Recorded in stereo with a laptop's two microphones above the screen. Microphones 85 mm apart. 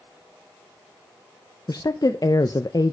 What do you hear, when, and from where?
1.7 s a woman speaking: 50° left (ahead or behind), 0.5 m